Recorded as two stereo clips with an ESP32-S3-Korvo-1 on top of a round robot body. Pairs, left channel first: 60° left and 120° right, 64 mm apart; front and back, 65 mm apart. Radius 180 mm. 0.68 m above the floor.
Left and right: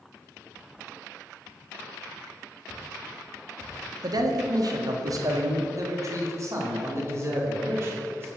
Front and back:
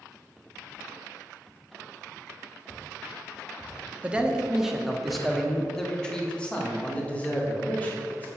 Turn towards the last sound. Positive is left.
turn(degrees=-65)